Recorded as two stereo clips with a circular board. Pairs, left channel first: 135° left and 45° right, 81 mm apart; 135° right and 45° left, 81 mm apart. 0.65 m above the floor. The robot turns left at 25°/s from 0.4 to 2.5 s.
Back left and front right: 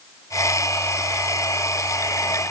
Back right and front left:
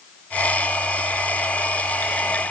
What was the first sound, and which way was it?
Only background noise.